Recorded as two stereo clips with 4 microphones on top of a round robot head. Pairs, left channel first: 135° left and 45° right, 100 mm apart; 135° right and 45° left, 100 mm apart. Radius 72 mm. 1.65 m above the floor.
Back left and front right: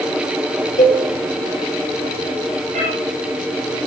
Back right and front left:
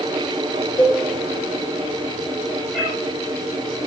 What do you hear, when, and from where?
0.8 s a cowbell: 160° left, 3.5 m
2.7 s a cat meowing: 55° right, 5.5 m